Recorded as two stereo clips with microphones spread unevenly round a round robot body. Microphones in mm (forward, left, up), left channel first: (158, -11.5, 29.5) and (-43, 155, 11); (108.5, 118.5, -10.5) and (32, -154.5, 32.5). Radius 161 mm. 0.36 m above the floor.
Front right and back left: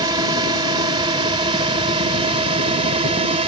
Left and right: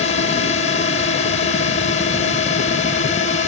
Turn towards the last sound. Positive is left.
turn(degrees=95)